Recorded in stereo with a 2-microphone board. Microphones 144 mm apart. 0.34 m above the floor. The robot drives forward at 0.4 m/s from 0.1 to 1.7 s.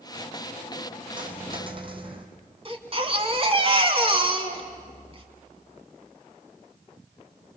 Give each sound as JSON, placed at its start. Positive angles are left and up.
{"t": 1.2, "sound": "a dropped coin", "side_deg": -35, "distance_m": 2.5}
{"t": 2.6, "sound": "a baby crying", "side_deg": -40, "distance_m": 2.0}